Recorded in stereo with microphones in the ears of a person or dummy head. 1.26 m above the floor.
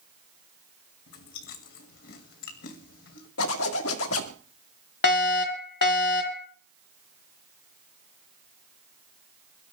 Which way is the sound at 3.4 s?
85° left.